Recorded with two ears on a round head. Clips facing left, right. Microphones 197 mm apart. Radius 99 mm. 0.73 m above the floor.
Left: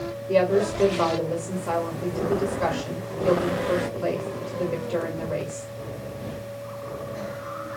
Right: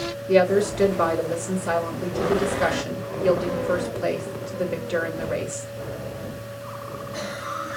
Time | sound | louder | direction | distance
0.3 | a woman speaking | right 2 dB | 20° right (ahead or behind) | 2.5 m